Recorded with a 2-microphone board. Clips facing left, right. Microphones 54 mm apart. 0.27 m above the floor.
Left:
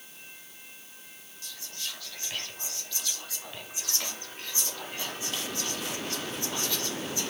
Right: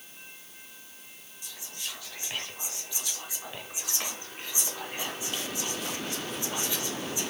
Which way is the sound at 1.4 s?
15° right (ahead or behind).